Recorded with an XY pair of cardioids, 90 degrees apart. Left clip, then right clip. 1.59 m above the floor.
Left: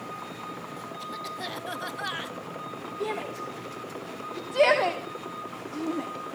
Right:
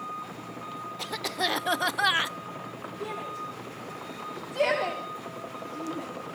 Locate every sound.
1.0 s a cough: 70° right, 0.9 m
3.0 s a shout: 45° left, 3.5 m